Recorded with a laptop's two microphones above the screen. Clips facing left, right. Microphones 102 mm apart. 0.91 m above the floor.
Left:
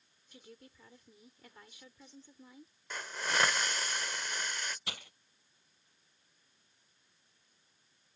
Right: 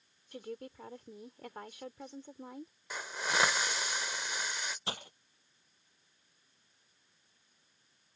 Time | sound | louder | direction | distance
0.3 | a woman speaking | right 12 dB | 65° right (ahead or behind) | ?
2.9 | a hiss | right 1 dB | 10° right (ahead or behind) | ?
4.9 | breaking glass | right 5 dB | 35° right (ahead or behind) | ?